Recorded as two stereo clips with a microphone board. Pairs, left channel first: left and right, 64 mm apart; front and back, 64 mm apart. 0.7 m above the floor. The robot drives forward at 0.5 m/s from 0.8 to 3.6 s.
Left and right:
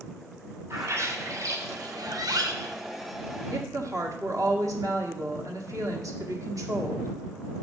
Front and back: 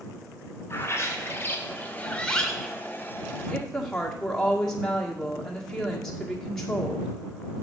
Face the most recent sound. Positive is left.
turn(degrees=-80)